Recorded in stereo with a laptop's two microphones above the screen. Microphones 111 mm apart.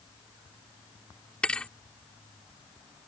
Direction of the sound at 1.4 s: 10° left (ahead or behind).